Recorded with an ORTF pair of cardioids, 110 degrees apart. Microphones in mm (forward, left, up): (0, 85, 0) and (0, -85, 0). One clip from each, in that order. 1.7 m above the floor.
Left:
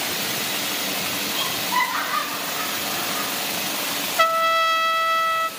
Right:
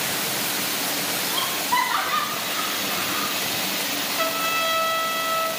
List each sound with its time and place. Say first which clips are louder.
1.3 s laughter: right 1 dB; 40° right, 5 m; by 3.3 s 35° right, 4 m
4.2 s a trumpet: left 7 dB; 50° left, 0.7 m